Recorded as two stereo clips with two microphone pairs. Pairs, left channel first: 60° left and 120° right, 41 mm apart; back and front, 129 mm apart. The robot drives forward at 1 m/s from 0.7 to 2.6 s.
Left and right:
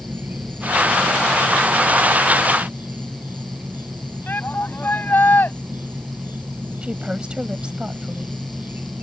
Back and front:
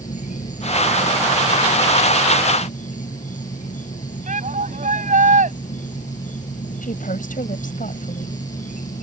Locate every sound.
0.0 s an insect: 160° right; by 9.0 s 165° right
4.3 s a shout: 15° left
6.8 s a woman speaking: 175° left